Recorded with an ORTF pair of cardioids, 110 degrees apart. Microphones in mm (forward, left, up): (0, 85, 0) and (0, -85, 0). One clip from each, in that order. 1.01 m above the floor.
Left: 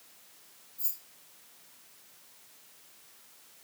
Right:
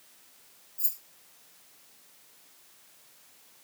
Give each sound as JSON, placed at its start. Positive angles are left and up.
{"t": 0.8, "sound": "keys jangling", "azimuth_deg": -45, "distance_m": 1.0}